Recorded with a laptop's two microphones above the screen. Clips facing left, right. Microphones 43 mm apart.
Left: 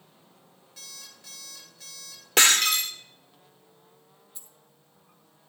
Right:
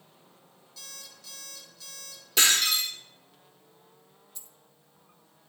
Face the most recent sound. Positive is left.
turn(degrees=10)  # may be behind; listen again after turning